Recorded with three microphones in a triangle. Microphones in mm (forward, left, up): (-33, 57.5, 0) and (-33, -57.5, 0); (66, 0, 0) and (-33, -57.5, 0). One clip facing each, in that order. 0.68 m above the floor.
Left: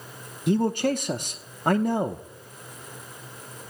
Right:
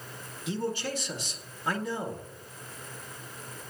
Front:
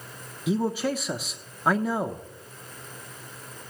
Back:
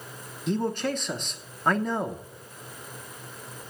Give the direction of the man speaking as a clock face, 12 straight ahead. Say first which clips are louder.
Left 9 dB, front 2 dB; 8 o'clock.